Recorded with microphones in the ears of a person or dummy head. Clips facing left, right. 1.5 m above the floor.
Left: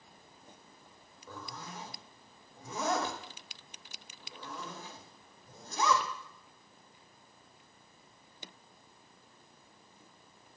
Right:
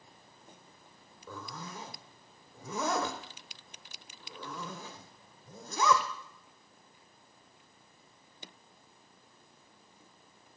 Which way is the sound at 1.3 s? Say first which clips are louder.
Right 2 dB; 70° right (ahead or behind).